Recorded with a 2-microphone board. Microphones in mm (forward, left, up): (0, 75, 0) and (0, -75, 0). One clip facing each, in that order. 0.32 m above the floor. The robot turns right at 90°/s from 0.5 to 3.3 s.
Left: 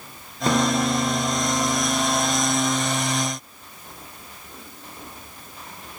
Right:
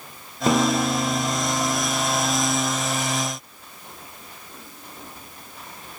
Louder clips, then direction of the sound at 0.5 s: Right 1 dB; 15° right.